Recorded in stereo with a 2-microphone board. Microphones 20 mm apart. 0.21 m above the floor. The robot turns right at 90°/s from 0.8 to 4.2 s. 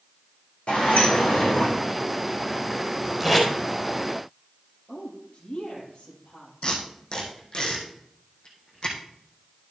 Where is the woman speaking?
45° left (ahead or behind), 5.5 m.